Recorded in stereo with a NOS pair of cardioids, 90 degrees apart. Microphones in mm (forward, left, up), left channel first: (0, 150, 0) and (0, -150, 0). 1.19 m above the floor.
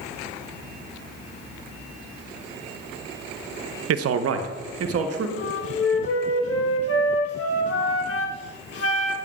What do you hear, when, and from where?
3.9 s a man speaking: 55° right, 0.7 m
5.4 s a flute: 50° left, 1.3 m